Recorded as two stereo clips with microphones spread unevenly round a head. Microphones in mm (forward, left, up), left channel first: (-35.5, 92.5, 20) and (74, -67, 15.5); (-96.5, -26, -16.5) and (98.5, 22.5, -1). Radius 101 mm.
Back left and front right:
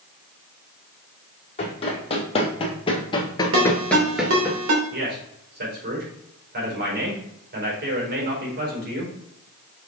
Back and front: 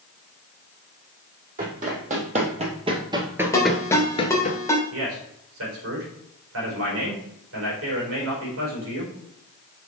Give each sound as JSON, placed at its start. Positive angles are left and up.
{"t": 1.6, "sound": "running footsteps", "azimuth_deg": 65, "distance_m": 3.5}
{"t": 3.5, "sound": "a ringtone", "azimuth_deg": -90, "distance_m": 2.5}
{"t": 4.9, "sound": "a man speaking", "azimuth_deg": -15, "distance_m": 4.5}